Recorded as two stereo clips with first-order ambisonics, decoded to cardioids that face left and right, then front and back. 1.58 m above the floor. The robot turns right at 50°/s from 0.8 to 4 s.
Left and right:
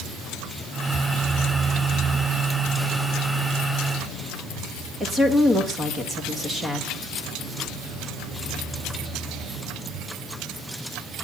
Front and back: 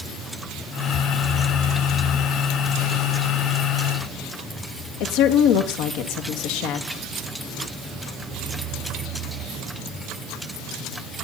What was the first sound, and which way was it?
A woman speaking, 10° right.